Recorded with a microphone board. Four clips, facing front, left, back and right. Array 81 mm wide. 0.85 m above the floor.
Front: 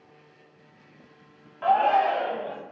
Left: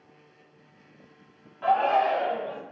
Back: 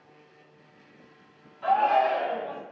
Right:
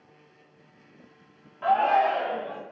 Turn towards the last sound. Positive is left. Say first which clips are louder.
# right 1 dB, front 1 dB
turn(degrees=-5)